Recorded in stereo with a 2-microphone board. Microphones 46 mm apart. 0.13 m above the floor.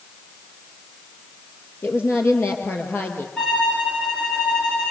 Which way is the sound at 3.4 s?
25° left (ahead or behind).